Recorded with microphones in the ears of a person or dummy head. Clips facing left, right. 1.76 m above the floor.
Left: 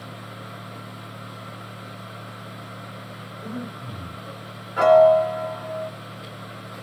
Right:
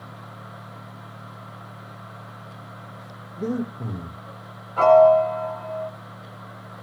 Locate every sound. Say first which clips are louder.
3.4 s breathing: right 8 dB; 65° right (ahead or behind), 6.5 m
4.8 s a piano: even; 15° left (ahead or behind), 1.1 m